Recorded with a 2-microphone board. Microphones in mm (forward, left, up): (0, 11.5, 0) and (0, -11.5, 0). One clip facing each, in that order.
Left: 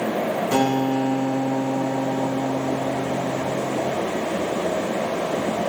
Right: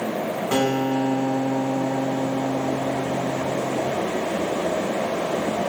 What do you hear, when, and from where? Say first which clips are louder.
0.5 s a guitar: even; 25° right (ahead or behind), 1.2 m